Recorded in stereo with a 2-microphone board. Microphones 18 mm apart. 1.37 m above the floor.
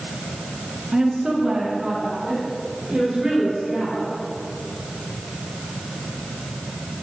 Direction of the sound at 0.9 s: 50° right (ahead or behind).